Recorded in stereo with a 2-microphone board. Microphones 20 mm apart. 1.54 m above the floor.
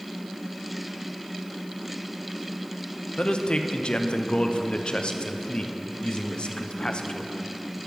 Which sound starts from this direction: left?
A man speaking, at 3.2 s.